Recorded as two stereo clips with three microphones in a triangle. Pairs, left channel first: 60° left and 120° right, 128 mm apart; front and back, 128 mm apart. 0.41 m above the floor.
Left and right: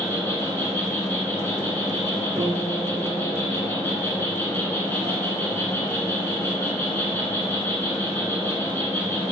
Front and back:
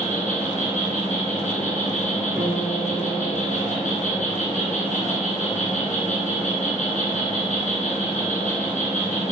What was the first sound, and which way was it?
An insect, 15° right.